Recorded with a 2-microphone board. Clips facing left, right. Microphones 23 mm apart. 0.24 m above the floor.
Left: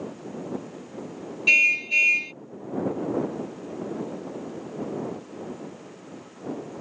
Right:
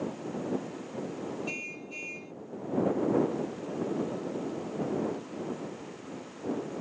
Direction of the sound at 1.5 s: 75° left (ahead or behind).